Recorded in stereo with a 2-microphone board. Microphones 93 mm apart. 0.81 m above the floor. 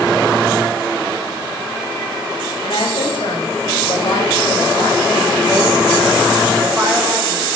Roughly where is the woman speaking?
Left.